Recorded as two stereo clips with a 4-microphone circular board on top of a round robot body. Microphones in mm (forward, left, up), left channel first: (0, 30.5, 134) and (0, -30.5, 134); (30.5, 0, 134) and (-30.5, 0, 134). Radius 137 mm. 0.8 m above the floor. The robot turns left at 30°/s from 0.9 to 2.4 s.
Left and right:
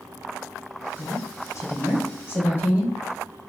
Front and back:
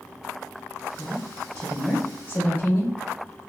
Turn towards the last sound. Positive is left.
turn(degrees=40)